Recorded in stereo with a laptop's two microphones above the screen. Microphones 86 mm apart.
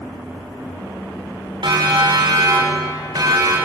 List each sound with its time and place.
1.6 s a siren: 70° right (ahead or behind), 4.5 m; by 3.6 s 45° right (ahead or behind), 6 m